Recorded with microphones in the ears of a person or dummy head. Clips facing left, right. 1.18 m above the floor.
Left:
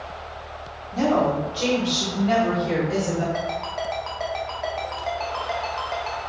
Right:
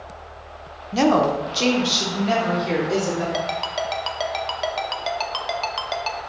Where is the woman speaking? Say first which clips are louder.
Right 3 dB; 85° right, 0.6 m; by 3.2 s 25° right (ahead or behind), 1.7 m.